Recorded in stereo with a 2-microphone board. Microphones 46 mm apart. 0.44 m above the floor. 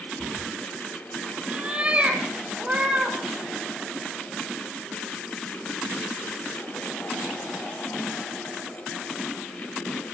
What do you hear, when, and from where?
0.2 s a cat meowing: 30° right (ahead or behind), 1.7 m; by 3.2 s 20° right (ahead or behind), 5.5 m